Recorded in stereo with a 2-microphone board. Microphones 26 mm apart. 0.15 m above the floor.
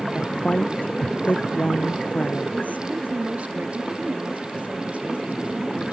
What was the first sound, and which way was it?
A woman speaking, 80° left.